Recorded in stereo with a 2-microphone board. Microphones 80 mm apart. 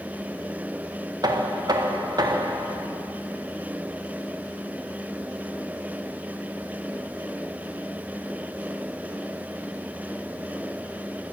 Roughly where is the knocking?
Right.